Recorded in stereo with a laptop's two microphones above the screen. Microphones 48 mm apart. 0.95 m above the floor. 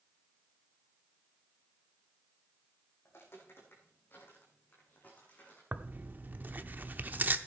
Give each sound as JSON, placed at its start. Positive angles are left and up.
{"t": 3.0, "sound": "footsteps", "side_deg": 55, "distance_m": 3.5}
{"t": 5.7, "sound": "tearing paper", "side_deg": -40, "distance_m": 0.6}